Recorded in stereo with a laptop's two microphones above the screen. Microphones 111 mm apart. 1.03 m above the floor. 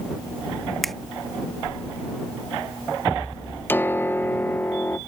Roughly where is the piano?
Centre.